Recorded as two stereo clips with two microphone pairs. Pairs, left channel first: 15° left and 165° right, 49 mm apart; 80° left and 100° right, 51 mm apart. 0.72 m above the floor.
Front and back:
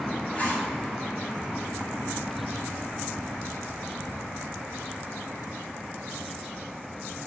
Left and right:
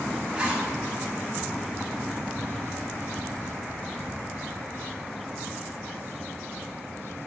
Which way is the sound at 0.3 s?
35° right.